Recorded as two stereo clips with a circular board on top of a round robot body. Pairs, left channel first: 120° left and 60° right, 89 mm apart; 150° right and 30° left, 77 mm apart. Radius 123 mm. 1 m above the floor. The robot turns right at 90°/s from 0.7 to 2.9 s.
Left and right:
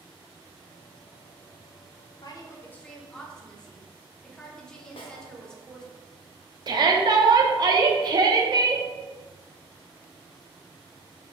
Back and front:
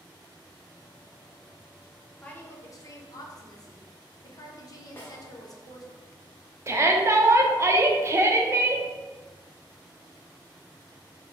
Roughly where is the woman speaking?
Behind left.